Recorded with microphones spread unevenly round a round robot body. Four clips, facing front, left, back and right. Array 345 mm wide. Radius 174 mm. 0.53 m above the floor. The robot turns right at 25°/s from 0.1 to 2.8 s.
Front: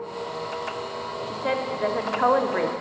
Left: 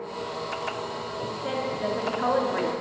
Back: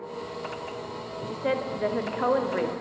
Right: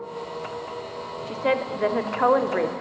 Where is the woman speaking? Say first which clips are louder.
Right 7 dB, even; 85° right, 0.8 m; by 2.7 s 50° right, 0.8 m.